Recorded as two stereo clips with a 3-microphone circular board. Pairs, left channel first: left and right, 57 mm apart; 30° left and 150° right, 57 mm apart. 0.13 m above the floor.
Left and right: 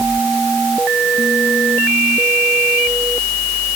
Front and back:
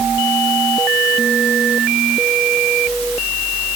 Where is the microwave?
No microwave in this recording.